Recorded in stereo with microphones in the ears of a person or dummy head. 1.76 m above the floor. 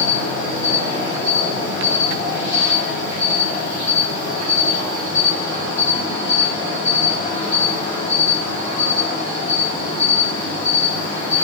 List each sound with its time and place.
0.0 s an insect: 15° right (ahead or behind), 4.5 m